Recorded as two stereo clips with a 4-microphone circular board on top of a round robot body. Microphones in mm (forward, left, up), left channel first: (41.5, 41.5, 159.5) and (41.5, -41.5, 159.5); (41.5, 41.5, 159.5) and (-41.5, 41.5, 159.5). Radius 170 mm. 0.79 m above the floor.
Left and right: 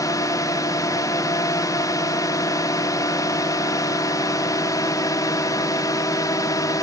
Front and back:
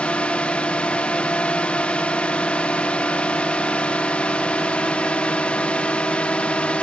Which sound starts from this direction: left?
A drone, at 0.0 s.